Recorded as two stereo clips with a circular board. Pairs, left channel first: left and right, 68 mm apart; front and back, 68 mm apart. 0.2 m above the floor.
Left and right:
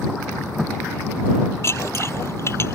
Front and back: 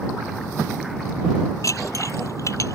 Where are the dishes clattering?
40° left.